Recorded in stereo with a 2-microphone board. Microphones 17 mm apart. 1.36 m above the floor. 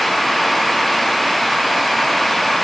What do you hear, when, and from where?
Only background noise.